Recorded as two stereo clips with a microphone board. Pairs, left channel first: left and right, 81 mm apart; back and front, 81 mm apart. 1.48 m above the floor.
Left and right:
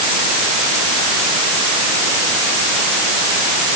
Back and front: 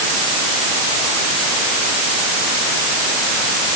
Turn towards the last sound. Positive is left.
No sound to turn to.